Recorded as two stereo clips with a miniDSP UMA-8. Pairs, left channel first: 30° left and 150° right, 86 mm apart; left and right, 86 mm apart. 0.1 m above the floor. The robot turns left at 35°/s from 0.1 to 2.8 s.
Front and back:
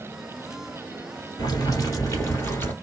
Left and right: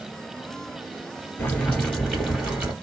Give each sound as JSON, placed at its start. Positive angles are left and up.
{"t": 1.4, "sound": "boiling", "azimuth_deg": 25, "distance_m": 2.0}